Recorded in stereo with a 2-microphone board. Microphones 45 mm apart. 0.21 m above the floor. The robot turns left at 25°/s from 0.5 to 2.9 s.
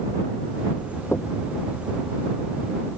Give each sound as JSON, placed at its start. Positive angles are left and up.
{"t": 1.1, "sound": "knocking", "side_deg": 50}